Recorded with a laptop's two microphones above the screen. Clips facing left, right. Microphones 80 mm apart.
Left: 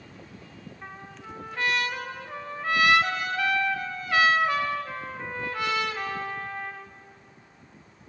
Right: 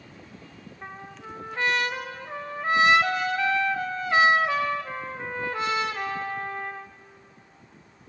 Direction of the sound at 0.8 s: 25° right (ahead or behind).